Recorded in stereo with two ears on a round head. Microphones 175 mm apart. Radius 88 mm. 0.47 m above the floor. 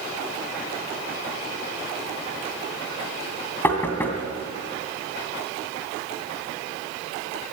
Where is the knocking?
10° left (ahead or behind), 2.5 m.